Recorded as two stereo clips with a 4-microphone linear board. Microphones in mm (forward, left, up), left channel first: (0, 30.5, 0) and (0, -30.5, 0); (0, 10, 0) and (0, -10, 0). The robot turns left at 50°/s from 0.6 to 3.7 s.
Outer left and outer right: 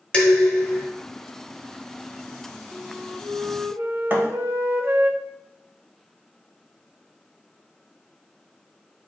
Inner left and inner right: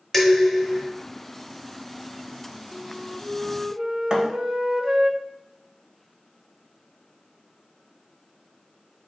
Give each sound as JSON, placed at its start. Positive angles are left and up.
{"t": 0.1, "sound": "dishes clattering", "side_deg": 20, "distance_m": 0.9}
{"t": 2.7, "sound": "a flute", "azimuth_deg": -50, "distance_m": 0.6}
{"t": 4.1, "sound": "a thud", "side_deg": -35, "distance_m": 0.7}